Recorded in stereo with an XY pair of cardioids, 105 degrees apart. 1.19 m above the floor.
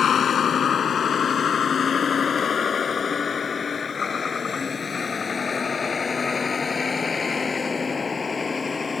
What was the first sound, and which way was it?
A vehicle, 50° left.